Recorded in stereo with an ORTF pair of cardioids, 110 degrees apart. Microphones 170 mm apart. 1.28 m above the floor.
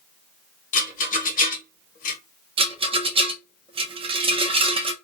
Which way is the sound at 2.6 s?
35° right.